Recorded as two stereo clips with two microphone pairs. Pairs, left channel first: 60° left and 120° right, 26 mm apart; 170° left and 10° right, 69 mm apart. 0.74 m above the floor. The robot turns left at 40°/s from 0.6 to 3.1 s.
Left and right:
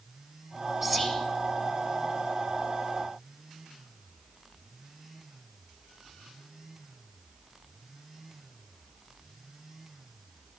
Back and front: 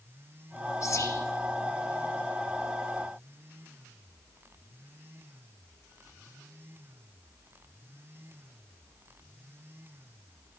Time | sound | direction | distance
0.8 | whispering | 170° left | 1.2 m